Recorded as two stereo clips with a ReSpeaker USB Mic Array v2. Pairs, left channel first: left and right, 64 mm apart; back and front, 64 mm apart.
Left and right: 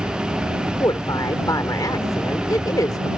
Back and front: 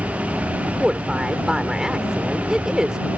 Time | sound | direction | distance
0.8 | a woman speaking | 80° left | ?